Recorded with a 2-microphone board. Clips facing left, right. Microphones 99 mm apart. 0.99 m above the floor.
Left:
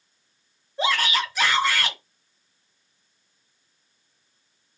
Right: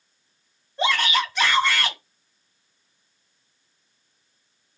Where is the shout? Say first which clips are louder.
Right 1 dB; 5° left (ahead or behind), 1.9 m.